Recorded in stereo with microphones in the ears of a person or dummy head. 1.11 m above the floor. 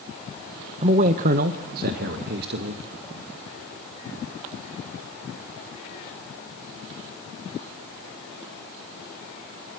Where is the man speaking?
30° right (ahead or behind), 0.8 m; by 2.8 s 55° right (ahead or behind), 1.7 m.